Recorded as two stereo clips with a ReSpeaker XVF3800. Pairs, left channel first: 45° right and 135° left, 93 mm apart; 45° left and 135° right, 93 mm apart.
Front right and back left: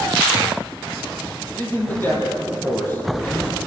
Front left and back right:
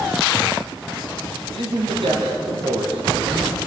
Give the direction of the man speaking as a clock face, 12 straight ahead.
4 o'clock.